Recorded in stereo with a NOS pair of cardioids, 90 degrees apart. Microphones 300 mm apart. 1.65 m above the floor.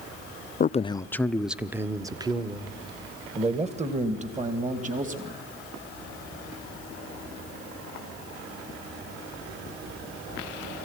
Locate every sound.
0.6 s a man speaking: 30° left, 0.5 m; by 5.4 s 25° right, 3 m